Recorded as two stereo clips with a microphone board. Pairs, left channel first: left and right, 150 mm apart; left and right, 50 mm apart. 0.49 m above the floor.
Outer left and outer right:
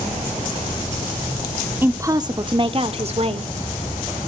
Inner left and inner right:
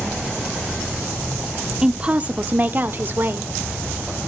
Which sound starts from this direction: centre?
A woman speaking, at 1.8 s.